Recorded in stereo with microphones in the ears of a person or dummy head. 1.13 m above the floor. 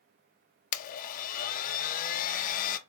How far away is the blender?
About 0.8 m.